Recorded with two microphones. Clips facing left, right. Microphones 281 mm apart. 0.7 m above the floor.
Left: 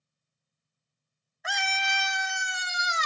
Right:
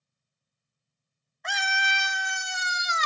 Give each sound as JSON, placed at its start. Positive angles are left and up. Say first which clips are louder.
{"t": 1.4, "sound": "a scream", "louder": "even", "side_deg": 5, "distance_m": 0.6}